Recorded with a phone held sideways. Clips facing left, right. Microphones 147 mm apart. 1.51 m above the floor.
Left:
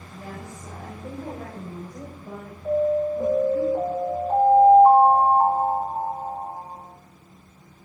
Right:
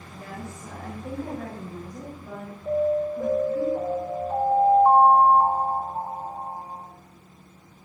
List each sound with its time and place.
0.1 s a woman speaking: 15° left (ahead or behind), 5.5 m; by 3.6 s 40° left (ahead or behind), 5.5 m
2.6 s an alarm: 55° left (ahead or behind), 5 m